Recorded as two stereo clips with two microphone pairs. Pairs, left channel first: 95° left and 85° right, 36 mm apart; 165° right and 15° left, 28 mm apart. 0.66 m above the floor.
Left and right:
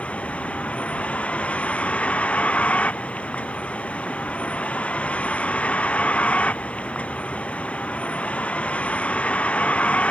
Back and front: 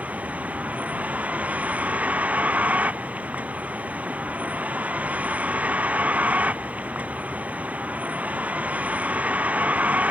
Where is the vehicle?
40° left.